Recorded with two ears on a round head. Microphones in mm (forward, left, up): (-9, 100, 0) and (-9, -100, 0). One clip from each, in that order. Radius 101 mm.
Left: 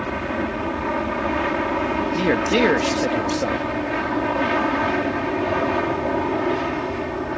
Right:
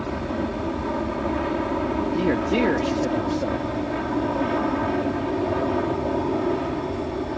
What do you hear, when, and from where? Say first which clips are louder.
0.0 s an aircraft: left 3 dB; 60° left (ahead or behind)
2.1 s a man speaking: left 4 dB; 55° left (ahead or behind)